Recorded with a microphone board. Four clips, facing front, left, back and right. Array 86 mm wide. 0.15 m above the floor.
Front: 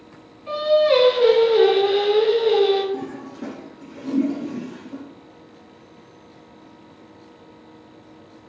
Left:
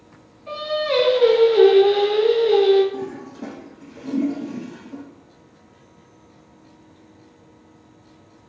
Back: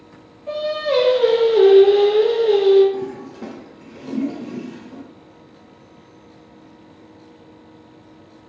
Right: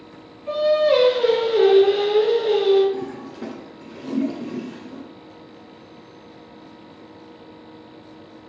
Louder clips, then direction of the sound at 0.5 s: Right 6 dB, front 5 dB; 20° left.